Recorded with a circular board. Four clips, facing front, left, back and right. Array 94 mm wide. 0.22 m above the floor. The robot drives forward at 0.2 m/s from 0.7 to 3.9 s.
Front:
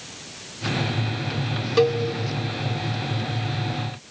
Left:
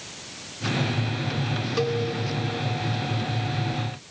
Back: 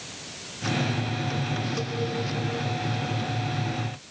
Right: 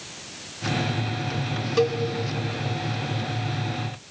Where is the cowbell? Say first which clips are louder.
Right 4 dB, front 12 dB; 10° right, 0.5 m.